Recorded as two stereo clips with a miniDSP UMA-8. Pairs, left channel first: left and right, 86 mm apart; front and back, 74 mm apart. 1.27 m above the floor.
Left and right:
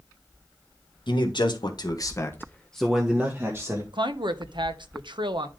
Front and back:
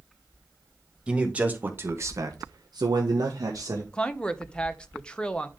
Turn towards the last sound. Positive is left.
turn(degrees=-80)